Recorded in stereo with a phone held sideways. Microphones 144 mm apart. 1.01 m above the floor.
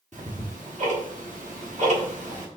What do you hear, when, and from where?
0.1 s ticking: 60° right (ahead or behind), 1.2 m